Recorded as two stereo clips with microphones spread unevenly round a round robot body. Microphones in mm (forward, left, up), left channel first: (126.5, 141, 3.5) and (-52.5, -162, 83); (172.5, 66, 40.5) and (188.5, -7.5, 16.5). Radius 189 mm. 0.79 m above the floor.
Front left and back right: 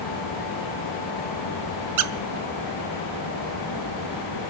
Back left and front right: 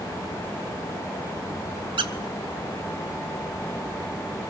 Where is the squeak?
75° right, 0.7 m.